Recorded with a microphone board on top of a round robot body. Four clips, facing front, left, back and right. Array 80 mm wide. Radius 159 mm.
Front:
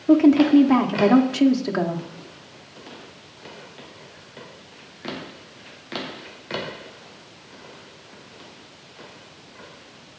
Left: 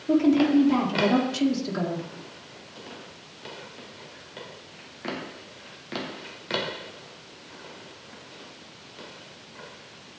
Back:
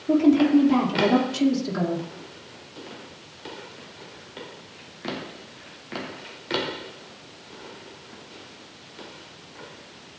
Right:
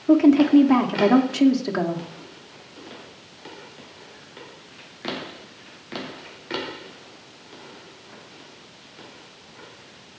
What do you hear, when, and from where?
0.1 s a woman speaking: 45° right, 2 m